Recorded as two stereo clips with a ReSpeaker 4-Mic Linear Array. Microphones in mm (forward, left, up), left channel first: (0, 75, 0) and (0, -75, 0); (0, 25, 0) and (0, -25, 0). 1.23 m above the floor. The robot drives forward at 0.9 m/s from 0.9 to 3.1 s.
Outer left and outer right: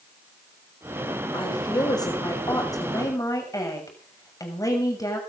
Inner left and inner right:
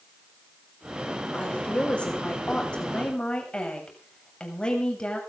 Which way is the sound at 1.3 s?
30° left (ahead or behind).